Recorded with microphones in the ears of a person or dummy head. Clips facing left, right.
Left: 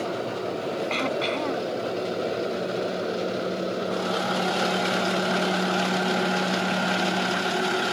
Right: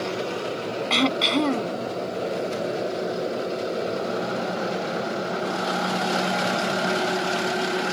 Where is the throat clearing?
60° right (ahead or behind).